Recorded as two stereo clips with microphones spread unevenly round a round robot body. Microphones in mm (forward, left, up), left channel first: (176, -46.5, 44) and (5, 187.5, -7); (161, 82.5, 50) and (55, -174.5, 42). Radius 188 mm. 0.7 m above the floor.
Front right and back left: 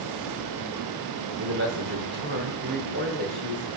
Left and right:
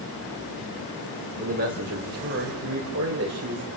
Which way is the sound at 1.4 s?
Straight behind.